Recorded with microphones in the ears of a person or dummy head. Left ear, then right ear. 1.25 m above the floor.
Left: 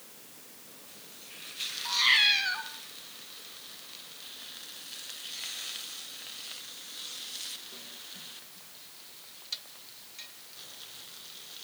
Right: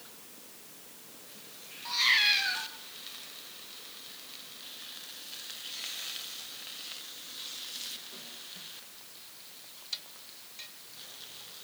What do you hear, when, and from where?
1.9 s a cat meowing: 15° left (ahead or behind), 2.0 m